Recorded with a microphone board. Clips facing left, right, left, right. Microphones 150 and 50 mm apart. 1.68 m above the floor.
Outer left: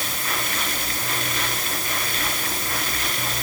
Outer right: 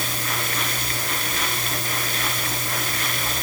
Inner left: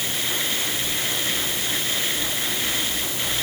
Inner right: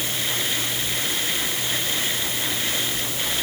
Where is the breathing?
No breathing in this recording.